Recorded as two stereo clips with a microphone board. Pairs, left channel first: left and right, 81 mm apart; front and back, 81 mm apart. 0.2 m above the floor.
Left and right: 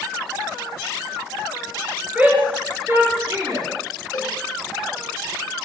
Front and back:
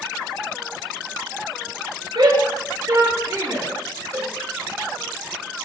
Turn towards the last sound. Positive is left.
turn(degrees=135)